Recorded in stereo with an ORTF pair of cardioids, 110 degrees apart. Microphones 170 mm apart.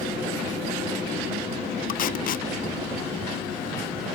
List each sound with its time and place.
1.9 s tape being pulled: 55° left